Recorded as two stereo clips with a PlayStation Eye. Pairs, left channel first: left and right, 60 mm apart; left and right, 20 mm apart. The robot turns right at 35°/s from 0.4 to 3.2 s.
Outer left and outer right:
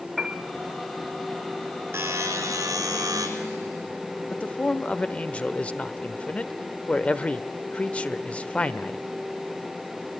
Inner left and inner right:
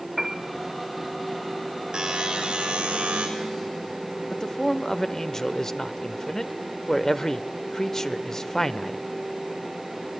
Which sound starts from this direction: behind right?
A buzzer, at 1.9 s.